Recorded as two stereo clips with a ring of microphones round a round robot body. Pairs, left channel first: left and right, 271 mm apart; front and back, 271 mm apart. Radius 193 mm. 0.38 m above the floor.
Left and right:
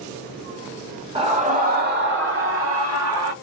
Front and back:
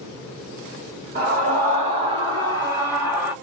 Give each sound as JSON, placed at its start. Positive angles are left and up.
{"t": 1.1, "sound": "a scream", "azimuth_deg": -150, "distance_m": 1.2}